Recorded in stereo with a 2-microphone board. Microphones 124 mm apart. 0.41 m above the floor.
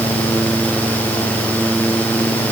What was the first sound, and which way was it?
Only background noise.